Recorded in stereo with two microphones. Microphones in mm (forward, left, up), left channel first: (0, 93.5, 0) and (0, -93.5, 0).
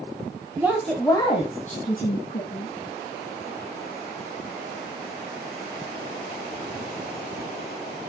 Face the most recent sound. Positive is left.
turn(degrees=65)  # may be behind; listen again after turning